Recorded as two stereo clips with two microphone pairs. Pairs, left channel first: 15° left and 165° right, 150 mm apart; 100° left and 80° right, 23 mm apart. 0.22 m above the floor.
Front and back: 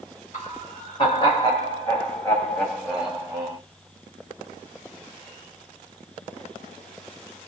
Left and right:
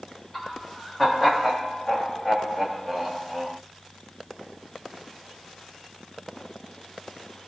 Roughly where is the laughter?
Ahead left.